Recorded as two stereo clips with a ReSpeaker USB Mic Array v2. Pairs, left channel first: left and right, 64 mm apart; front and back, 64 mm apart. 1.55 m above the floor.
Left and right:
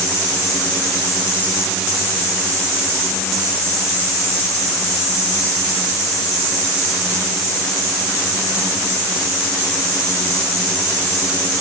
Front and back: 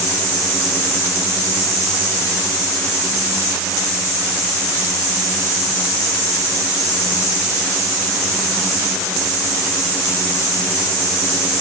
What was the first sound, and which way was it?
Only background noise.